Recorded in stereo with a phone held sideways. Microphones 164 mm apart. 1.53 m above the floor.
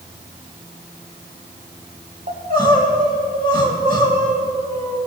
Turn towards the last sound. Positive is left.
turn(degrees=-65)  # may be behind; listen again after turning